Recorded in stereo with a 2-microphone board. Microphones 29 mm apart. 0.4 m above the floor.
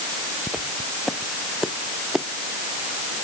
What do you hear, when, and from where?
0.5 s footsteps: 15° right (ahead or behind); by 2.3 s 10° right (ahead or behind)